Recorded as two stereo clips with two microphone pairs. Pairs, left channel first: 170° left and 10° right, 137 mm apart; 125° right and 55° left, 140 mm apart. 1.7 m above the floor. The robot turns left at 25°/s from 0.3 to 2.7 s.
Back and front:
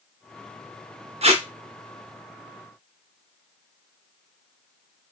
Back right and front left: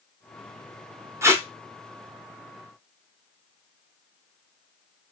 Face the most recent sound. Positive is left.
turn(degrees=-45)